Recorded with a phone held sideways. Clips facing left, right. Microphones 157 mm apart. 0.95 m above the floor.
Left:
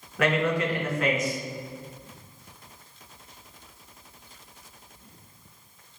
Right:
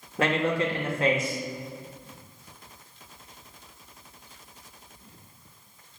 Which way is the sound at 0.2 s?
30° right (ahead or behind).